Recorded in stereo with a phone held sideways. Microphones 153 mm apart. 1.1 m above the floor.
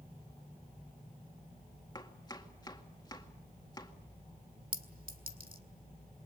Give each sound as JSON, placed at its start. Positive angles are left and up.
{"t": 1.9, "sound": "chopping", "side_deg": 25, "distance_m": 2.0}
{"t": 4.7, "sound": "a clink", "side_deg": -70, "distance_m": 1.8}